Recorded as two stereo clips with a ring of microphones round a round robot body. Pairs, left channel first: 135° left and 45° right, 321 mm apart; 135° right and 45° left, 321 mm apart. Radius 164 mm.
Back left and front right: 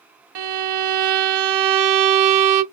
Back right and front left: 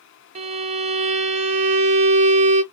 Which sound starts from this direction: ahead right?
A violin, at 0.3 s.